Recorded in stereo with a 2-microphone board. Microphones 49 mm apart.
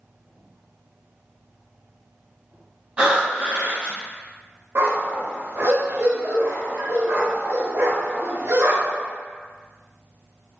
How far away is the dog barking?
About 0.5 m.